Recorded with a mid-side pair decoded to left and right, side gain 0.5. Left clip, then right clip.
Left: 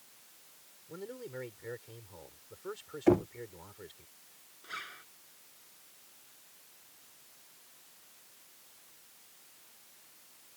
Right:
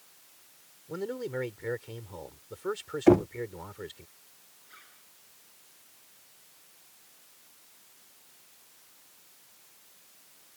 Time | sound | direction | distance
0.9 | a man speaking | 50° right | ?
3.1 | knocking | 35° right | ?
4.6 | a zipper | 70° left | ?